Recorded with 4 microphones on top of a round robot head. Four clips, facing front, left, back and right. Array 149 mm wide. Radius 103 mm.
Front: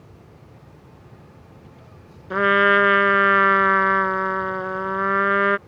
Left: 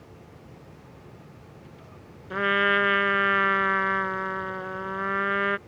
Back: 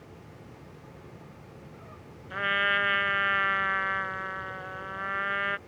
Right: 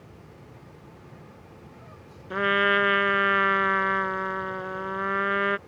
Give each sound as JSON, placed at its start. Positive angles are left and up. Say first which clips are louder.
{"t": 2.3, "sound": "a trumpet", "louder": "right 1 dB, front 12 dB", "azimuth_deg": -5}